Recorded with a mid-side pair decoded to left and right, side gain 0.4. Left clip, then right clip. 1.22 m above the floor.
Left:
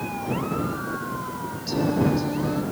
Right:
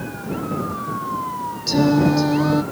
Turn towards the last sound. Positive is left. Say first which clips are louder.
# right 6 dB
turn(degrees=-65)